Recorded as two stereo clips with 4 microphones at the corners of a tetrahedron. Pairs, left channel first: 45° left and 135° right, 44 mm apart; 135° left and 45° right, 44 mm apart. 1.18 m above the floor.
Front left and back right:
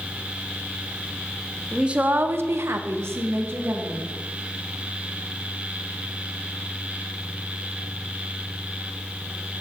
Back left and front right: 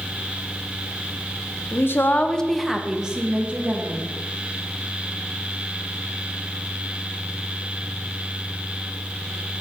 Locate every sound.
1.7 s a woman speaking: 150° left, 0.6 m; by 4.0 s 100° right, 1.6 m